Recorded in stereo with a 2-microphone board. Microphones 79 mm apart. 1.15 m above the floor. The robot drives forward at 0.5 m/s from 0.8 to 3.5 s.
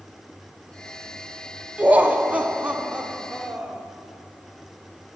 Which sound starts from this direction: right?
Laughter, at 1.8 s.